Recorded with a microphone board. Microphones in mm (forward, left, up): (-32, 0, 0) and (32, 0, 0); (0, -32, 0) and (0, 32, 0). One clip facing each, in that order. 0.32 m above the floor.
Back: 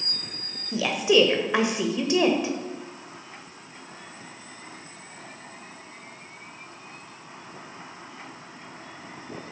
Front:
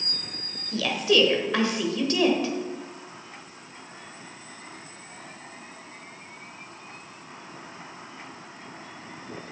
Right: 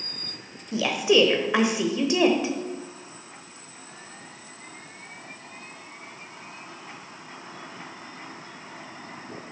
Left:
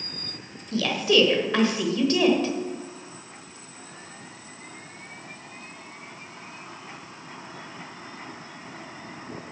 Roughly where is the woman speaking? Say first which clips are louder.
Back 2 dB, right 1 dB; behind right.